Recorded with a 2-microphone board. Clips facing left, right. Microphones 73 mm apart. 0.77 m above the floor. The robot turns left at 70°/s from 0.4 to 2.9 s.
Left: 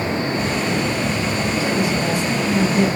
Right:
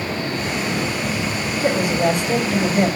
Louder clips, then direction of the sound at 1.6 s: Right 5 dB; 45° right.